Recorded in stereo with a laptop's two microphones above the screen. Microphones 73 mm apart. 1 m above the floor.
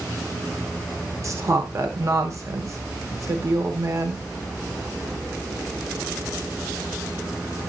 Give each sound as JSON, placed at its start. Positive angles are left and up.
{"t": 1.2, "sound": "a woman speaking", "side_deg": -45, "distance_m": 0.9}